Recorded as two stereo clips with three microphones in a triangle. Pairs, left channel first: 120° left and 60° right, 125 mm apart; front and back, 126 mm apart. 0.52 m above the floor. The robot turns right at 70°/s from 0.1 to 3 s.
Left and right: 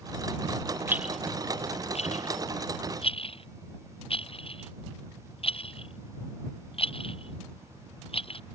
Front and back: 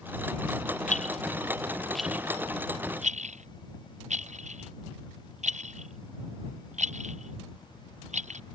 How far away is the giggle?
I don't hear a giggle.